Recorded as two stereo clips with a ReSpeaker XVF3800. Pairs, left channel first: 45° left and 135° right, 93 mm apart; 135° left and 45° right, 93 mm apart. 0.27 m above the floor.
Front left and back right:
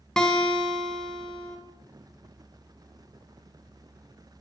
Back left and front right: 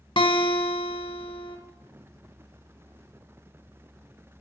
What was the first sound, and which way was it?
A guitar, 125° left.